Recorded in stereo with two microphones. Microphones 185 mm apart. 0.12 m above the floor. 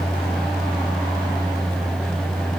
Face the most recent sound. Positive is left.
No sound to turn to.